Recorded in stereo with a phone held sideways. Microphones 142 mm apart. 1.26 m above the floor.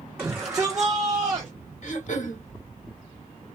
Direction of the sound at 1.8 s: 55° left (ahead or behind).